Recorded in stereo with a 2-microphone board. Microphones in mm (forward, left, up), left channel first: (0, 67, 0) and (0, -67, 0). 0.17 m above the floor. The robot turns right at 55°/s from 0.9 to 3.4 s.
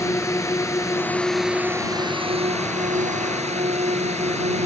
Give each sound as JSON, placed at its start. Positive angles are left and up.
{"t": 0.0, "sound": "a drone", "azimuth_deg": 155}